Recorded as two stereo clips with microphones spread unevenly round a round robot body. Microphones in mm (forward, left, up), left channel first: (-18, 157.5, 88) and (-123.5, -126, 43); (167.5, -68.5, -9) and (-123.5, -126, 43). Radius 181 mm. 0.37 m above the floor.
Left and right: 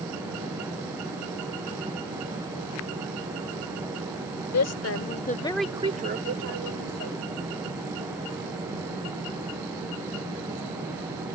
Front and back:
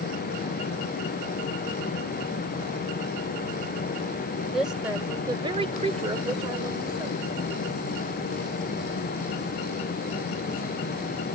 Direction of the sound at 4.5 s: 95° left.